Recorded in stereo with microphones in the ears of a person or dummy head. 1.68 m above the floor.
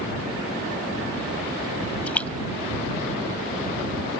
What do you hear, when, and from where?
2.1 s a splash: 10° left (ahead or behind)